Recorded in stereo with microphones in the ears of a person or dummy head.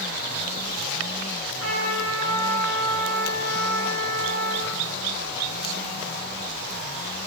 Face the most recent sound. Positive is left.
turn(degrees=85)